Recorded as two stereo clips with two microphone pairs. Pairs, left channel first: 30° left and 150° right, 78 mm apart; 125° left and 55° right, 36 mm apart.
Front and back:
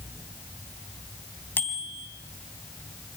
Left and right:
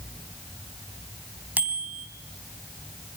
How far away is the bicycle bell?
About 3 m.